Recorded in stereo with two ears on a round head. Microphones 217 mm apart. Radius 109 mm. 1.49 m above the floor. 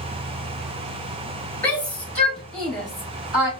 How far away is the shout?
About 3 m.